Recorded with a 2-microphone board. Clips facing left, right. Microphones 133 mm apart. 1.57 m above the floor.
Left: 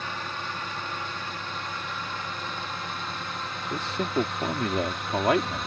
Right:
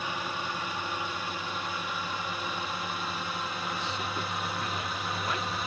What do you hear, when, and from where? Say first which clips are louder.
0.0 s a drone: right 1 dB; 10° right (ahead or behind); by 5.7 s 5° right (ahead or behind)
3.7 s a man speaking: left 6 dB; 70° left (ahead or behind)